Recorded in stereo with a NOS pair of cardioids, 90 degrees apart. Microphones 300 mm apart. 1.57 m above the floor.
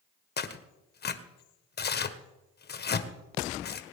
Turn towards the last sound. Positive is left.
turn(degrees=35)